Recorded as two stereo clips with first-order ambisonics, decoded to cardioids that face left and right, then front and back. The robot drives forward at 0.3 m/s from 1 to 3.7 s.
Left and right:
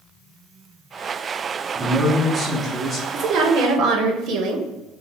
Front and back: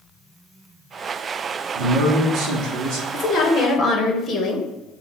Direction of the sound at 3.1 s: 65° right.